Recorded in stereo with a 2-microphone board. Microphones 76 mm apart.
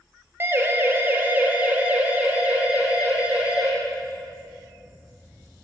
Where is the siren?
30° right (ahead or behind), 3 m; by 3.7 s 10° right (ahead or behind), 7 m.